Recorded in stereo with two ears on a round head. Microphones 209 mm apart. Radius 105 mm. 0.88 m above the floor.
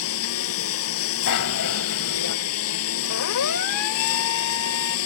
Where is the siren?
80° left; by 5.0 s 65° left (ahead or behind).